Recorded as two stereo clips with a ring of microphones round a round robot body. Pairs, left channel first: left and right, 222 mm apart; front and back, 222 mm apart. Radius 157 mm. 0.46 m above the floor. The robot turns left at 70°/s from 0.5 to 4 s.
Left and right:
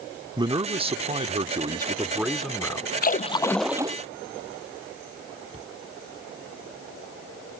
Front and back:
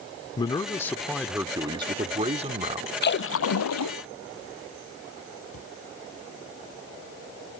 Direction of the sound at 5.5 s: 25° right.